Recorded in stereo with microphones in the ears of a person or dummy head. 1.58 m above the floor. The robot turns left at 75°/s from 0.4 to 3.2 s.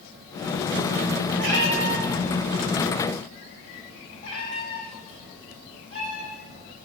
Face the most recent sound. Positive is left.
turn(degrees=30)  # may be behind; listen again after turning